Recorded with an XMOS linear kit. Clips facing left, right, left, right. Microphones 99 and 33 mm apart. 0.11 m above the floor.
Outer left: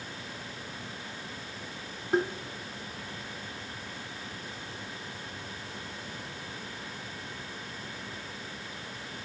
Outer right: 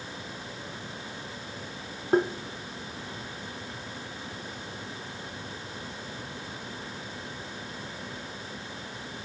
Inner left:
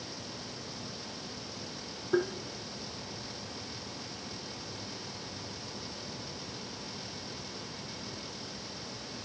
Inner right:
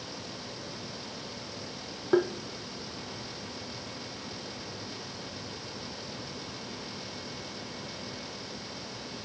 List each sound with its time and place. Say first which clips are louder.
2.1 s tapping: outer right 4 dB, inner right 4 dB; 50° right (ahead or behind), 0.7 m